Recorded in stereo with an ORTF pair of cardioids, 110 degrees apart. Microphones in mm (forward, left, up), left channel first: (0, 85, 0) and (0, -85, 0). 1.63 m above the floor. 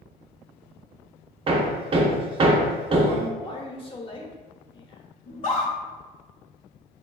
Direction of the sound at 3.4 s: 30° left.